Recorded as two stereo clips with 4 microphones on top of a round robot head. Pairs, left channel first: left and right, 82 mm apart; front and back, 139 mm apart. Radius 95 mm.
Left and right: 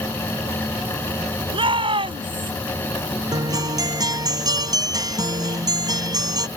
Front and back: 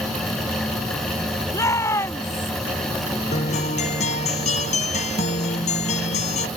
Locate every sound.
1.5 s a shout: 75° right
3.3 s a guitar: 50° right